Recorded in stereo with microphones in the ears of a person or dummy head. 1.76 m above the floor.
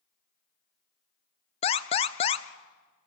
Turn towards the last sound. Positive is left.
turn(degrees=30)  # may be behind; listen again after turning